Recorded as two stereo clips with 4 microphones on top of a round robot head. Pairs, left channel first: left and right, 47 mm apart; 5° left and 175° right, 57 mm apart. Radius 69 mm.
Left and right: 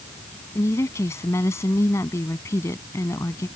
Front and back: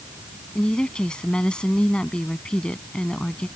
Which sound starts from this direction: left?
A woman speaking, at 0.6 s.